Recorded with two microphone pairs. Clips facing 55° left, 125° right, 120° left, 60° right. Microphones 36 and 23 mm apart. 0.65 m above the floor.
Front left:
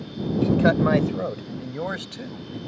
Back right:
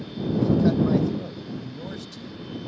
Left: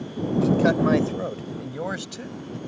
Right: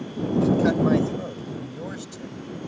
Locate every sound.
0.4 s a man speaking: 45° left; by 2.6 s 75° left